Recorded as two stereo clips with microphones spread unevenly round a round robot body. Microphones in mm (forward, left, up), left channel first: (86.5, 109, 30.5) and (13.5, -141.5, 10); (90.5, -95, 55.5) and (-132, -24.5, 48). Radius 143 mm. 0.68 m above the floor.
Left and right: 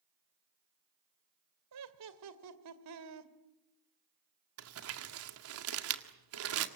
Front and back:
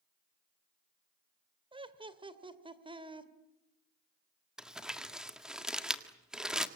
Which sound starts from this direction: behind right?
Laughter, at 1.7 s.